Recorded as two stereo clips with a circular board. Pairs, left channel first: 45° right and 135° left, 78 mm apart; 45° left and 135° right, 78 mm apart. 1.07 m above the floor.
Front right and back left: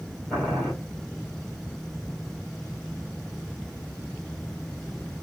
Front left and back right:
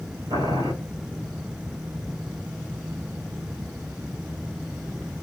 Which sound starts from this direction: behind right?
Boiling, at 0.3 s.